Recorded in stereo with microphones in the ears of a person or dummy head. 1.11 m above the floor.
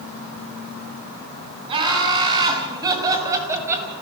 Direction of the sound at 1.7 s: 35° right (ahead or behind).